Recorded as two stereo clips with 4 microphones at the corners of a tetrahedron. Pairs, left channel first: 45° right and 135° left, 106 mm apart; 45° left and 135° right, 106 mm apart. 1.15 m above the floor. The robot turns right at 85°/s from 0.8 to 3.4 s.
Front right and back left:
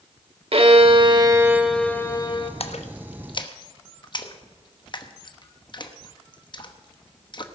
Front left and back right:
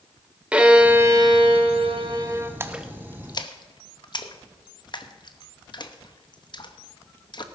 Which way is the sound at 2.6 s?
70° right.